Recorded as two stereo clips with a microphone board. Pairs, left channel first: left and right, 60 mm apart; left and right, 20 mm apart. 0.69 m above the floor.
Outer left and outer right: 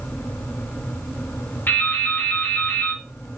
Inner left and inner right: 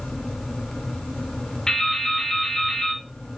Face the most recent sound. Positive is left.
turn(degrees=40)  # may be behind; listen again after turning